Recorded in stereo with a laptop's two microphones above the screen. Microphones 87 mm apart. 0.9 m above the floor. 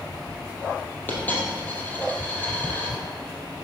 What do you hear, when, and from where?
1.1 s a dropped coin: 20° left (ahead or behind), 2.5 m